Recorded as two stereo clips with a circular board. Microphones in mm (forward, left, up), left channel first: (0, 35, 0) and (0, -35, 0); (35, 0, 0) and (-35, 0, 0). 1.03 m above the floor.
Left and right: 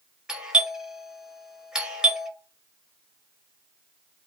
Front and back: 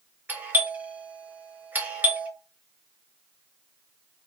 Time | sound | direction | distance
0.3 | a doorbell | 155° right | 0.8 m